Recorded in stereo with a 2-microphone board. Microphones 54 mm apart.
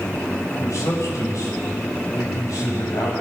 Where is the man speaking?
65° left (ahead or behind), 7 m; by 3.1 s 75° left (ahead or behind), 8.5 m.